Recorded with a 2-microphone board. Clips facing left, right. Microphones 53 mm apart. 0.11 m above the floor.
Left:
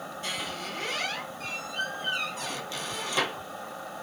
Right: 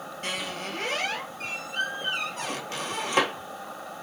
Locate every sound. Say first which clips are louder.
0.2 s a squeak: right 3 dB; 50° right (ahead or behind), 0.8 m